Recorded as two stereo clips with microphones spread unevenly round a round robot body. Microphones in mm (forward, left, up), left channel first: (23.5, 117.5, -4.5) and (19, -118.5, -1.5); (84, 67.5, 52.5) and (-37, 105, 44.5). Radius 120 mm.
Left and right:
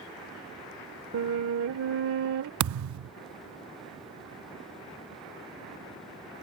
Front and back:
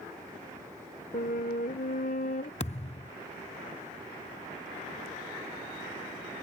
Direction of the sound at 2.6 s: 75° right.